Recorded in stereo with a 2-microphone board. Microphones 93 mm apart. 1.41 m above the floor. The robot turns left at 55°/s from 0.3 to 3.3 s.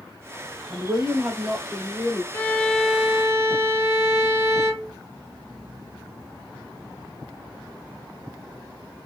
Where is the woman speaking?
135° right, 0.9 m; by 2.2 s 140° left, 0.9 m.